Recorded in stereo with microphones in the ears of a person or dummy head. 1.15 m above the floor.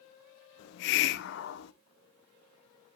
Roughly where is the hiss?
Left.